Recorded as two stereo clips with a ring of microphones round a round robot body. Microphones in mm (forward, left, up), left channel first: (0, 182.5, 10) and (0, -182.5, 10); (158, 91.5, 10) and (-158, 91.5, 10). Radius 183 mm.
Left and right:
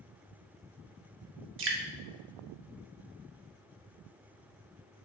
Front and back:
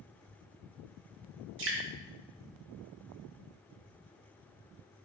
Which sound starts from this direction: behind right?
Dripping, at 1.6 s.